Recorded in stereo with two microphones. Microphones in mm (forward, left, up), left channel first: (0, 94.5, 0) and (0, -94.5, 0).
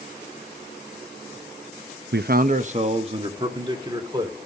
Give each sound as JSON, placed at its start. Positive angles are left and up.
{"t": 2.1, "sound": "a man speaking", "side_deg": -70, "distance_m": 0.6}